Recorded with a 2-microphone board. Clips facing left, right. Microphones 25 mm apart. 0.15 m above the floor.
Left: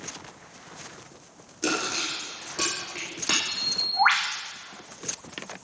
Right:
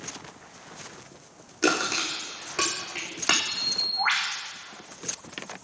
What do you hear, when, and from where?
1.6 s crushing: 40° right (ahead or behind), 6 m
3.5 s a bird: 75° left (ahead or behind), 2 m